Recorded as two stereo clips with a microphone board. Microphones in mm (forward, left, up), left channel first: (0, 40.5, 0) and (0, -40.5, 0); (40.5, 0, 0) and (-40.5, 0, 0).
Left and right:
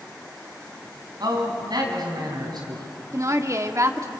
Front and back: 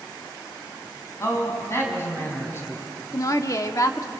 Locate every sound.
1.2 s a man speaking: 55° right, 5 m
3.1 s a woman speaking: 45° right, 1.3 m